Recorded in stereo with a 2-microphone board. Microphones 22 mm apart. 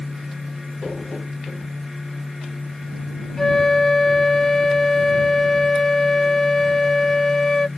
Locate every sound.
3.4 s a flute: 20° left (ahead or behind)